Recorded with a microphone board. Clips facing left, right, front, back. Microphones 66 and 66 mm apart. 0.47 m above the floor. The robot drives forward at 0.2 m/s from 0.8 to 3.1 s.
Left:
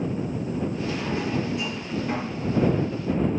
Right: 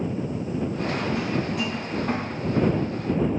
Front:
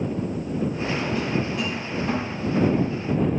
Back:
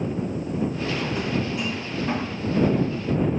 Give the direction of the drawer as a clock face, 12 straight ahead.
3 o'clock.